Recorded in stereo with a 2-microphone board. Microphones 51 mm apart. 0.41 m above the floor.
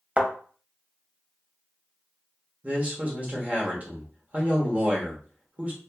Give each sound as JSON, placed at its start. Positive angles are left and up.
{"t": 0.2, "sound": "a thud", "side_deg": -25, "distance_m": 0.6}
{"t": 2.6, "sound": "a man speaking", "side_deg": -30, "distance_m": 0.9}